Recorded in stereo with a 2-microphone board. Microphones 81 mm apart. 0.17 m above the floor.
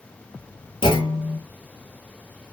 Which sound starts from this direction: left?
A clunk, at 0.8 s.